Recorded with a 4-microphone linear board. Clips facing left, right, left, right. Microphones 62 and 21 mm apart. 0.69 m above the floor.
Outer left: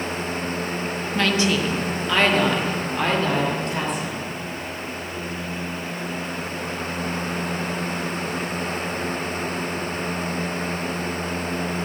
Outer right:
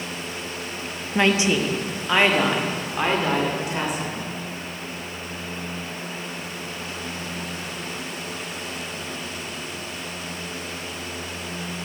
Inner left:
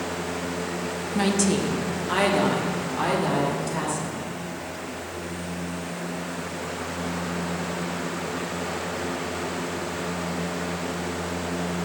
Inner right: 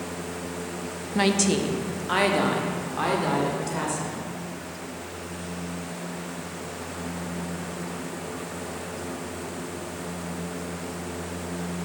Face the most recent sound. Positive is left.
turn(degrees=-5)  # may be behind; listen again after turning